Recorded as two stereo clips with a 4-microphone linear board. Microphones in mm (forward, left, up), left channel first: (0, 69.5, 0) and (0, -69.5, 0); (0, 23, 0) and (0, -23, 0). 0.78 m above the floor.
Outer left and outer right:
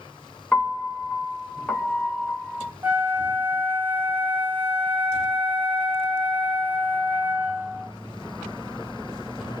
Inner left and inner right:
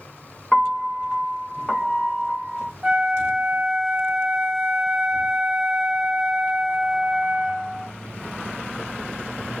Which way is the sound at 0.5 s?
10° left (ahead or behind).